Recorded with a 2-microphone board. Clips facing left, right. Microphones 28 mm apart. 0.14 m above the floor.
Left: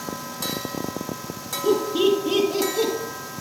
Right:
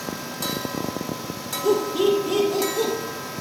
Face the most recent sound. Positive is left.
turn(degrees=35)  # may be behind; listen again after turning